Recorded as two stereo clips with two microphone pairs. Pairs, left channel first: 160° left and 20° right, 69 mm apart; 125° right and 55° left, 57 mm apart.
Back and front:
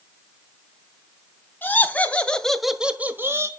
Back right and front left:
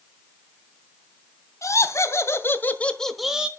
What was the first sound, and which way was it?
Laughter, 145° right.